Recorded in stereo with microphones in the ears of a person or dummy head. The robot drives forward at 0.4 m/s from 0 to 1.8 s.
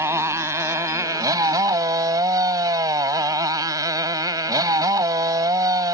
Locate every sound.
0.0 s a motorcycle: 15° right (ahead or behind); by 5.9 s 20° right (ahead or behind)